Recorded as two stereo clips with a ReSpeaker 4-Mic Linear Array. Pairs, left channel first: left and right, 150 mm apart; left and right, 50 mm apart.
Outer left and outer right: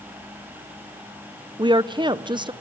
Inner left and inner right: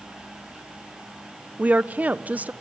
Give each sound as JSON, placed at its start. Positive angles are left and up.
{"t": 1.6, "sound": "a woman speaking", "side_deg": -30, "distance_m": 0.7}